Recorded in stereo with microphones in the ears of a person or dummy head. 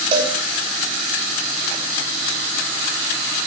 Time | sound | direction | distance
0.1 | a cowbell | 20° right (ahead or behind) | 3.5 m